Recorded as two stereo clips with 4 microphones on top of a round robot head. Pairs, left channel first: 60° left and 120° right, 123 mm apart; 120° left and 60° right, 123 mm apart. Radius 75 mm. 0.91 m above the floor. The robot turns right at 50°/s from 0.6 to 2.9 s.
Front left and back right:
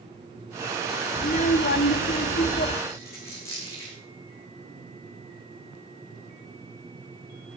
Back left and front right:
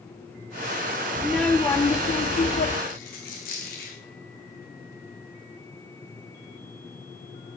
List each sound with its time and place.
1.2 s a child speaking: 20° left, 1.2 m; by 2.8 s 105° left, 1.2 m
2.9 s a dropped coin: 130° left, 5.5 m